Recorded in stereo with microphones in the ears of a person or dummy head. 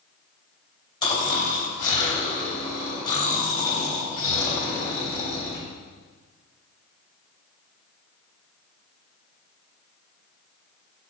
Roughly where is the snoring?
Left.